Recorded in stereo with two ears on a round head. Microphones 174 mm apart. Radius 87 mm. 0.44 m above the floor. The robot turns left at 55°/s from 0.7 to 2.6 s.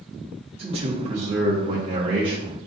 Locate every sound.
0.6 s a man speaking: 50° right, 0.9 m; by 2.6 s 150° right, 0.9 m